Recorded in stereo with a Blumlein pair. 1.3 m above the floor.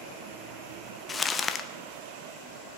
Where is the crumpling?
20° left, 0.8 m.